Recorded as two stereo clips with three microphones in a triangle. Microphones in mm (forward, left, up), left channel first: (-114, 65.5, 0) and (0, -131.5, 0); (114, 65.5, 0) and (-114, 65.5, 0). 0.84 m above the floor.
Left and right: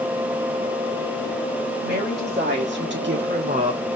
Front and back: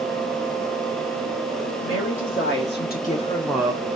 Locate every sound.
1.8 s a woman speaking: 20° right, 2.5 m; by 3.8 s 130° right, 0.8 m